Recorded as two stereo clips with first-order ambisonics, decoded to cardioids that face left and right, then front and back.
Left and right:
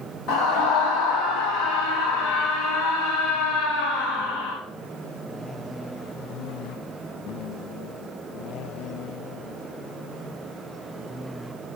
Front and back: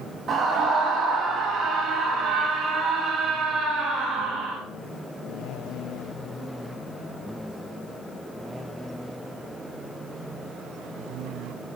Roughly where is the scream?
Behind left.